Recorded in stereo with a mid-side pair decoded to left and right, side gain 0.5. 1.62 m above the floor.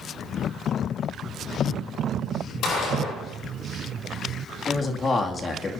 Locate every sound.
2.6 s a gunshot: 65° left, 7.5 m
4.7 s a man speaking: 40° left, 2.5 m